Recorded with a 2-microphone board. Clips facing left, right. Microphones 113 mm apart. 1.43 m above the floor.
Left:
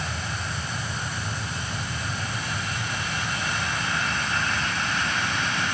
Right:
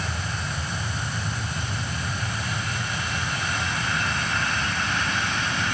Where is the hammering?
I don't hear hammering.